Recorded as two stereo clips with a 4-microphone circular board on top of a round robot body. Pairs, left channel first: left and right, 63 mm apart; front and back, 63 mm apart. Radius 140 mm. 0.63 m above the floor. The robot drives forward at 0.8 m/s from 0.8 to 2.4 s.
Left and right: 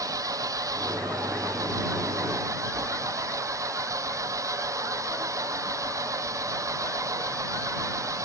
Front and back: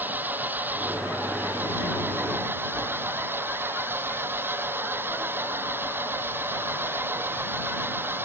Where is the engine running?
120° right; by 8.2 s 125° right.